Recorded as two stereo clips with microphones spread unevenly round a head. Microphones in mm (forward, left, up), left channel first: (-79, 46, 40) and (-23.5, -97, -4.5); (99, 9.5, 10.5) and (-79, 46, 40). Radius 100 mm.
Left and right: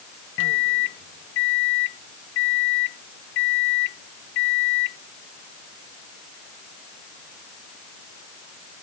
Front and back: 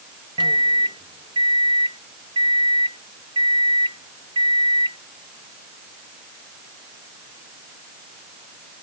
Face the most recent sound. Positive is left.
turn(degrees=100)